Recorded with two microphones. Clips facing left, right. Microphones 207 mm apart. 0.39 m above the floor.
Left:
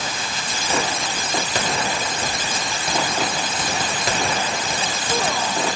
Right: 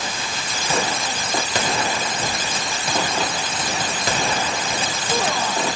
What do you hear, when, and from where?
Only background noise.